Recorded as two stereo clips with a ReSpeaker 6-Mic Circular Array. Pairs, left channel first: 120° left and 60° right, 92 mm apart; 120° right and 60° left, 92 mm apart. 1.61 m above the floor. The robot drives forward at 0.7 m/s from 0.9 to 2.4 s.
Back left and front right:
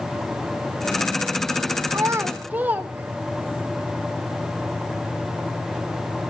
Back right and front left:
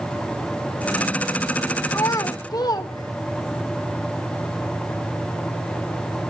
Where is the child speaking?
80° right, 0.7 m; by 3.6 s 125° right, 0.7 m.